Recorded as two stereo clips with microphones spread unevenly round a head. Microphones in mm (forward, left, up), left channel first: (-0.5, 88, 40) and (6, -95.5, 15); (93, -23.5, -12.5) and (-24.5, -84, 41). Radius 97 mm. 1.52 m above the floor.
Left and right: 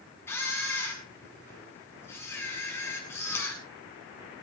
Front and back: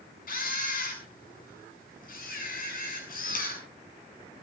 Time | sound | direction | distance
0.3 | a camera shutter | 15° left | 8 m